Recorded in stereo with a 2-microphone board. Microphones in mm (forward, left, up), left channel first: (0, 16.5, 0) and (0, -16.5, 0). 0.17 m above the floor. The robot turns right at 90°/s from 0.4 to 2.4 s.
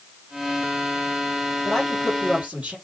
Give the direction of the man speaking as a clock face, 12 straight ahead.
7 o'clock.